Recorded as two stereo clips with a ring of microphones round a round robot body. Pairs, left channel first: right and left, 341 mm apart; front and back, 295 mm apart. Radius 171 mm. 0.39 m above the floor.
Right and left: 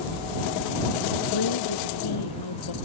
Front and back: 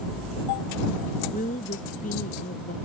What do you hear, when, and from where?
1.3 s a woman speaking: 70° right